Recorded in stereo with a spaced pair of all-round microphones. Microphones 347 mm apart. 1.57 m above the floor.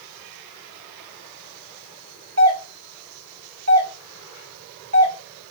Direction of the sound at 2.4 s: 45° right (ahead or behind).